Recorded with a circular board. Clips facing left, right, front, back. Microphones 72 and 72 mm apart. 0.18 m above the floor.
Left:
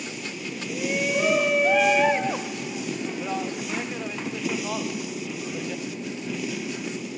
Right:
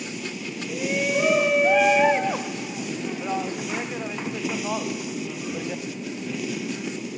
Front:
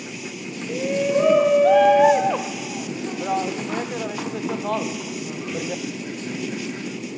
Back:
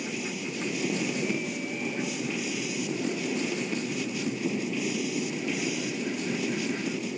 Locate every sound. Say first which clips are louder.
0.7 s a shout: right 1 dB, front 11 dB; 5° right; by 5.8 s 15° right